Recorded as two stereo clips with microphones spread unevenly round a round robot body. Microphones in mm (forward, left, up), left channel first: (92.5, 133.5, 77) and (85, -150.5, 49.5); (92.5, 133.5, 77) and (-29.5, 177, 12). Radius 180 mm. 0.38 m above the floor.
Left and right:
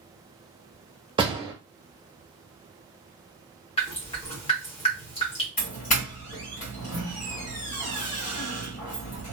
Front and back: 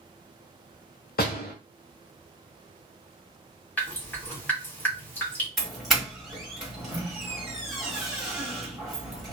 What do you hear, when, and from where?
1.2 s a door slam: 30° right, 1.1 m
3.8 s dripping: 135° left, 1.5 m
5.6 s a doorbell: 135° left, 1.6 m